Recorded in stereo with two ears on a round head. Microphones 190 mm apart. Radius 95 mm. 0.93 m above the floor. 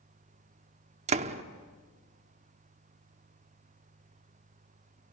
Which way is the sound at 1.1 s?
30° right (ahead or behind).